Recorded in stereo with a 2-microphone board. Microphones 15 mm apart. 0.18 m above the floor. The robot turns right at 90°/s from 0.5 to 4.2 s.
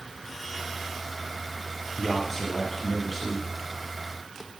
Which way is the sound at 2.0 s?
25° left (ahead or behind).